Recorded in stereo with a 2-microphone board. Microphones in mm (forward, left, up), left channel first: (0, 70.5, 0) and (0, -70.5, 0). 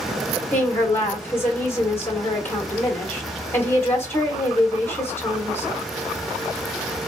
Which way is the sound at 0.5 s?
15° left (ahead or behind).